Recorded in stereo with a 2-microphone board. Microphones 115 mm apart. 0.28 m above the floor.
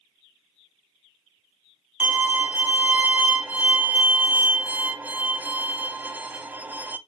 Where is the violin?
15° right (ahead or behind), 0.7 m.